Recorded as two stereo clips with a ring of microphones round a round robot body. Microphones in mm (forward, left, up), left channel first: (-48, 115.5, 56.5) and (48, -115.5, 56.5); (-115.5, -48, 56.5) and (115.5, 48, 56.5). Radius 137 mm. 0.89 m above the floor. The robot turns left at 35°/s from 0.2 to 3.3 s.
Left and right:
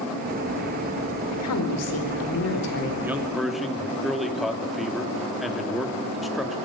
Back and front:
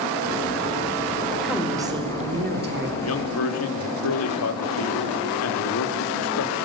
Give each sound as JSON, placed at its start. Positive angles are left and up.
{"t": 1.3, "sound": "a woman speaking", "azimuth_deg": 115, "distance_m": 3.5}
{"t": 3.0, "sound": "a man speaking", "azimuth_deg": -145, "distance_m": 2.5}